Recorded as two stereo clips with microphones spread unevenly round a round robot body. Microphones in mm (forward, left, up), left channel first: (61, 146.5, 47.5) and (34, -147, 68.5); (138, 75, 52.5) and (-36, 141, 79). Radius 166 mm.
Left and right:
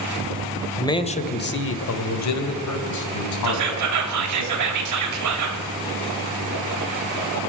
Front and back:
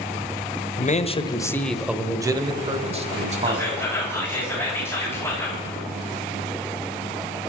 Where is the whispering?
95° right, 2.5 m.